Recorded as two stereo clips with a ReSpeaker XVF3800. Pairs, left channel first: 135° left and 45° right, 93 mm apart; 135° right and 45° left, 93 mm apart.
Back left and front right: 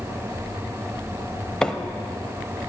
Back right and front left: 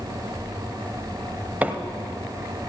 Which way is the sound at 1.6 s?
70° left.